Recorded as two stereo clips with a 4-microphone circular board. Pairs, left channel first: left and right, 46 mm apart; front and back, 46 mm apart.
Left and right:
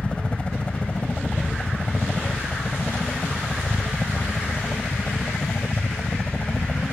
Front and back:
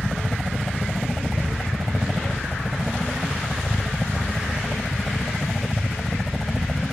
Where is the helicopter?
75° left.